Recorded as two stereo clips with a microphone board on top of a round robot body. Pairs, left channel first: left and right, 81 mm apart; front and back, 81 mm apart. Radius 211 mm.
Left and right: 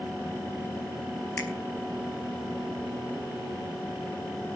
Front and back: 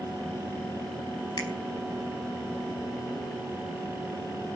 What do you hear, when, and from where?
1.4 s a finger snap: 30° left, 4 m